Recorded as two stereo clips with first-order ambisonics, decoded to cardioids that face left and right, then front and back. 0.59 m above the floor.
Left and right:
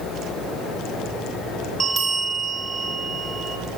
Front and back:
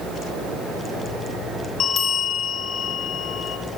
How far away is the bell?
About 1.2 m.